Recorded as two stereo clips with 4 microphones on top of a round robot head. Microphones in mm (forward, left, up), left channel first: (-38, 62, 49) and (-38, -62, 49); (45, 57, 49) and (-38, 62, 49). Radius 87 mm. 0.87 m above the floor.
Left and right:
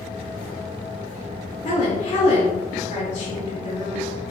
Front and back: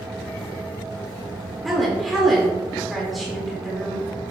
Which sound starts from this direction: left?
A woman speaking, at 1.6 s.